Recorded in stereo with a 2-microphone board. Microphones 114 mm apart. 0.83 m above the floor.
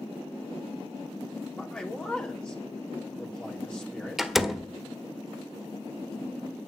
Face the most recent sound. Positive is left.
turn(degrees=-5)  # may be behind; listen again after turning